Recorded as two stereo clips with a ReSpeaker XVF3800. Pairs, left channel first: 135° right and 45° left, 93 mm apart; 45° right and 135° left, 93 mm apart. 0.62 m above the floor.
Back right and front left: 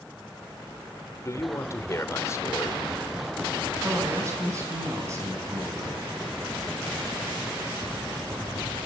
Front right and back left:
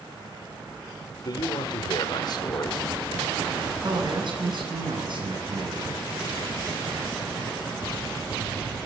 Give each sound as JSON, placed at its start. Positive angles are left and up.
{"t": 1.2, "sound": "a man speaking", "azimuth_deg": -80, "distance_m": 1.9}
{"t": 3.8, "sound": "a man speaking", "azimuth_deg": 105, "distance_m": 6.5}